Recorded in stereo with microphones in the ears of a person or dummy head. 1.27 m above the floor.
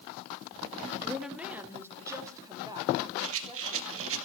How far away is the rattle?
About 1.9 m.